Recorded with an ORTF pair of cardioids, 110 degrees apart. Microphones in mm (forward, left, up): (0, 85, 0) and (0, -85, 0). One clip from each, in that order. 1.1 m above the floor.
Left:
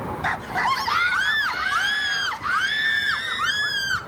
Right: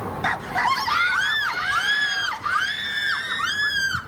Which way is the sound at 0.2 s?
5° right.